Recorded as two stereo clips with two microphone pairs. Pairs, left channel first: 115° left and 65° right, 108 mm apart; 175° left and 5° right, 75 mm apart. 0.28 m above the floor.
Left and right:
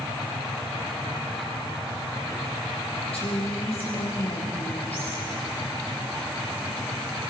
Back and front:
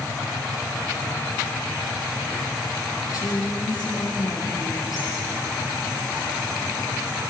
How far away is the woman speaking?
About 8 m.